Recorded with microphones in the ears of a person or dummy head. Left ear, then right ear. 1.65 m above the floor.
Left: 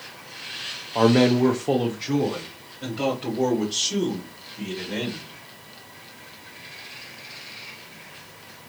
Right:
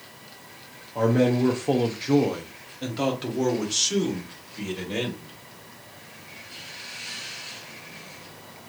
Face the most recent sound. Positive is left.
turn(degrees=-65)  # may be behind; listen again after turning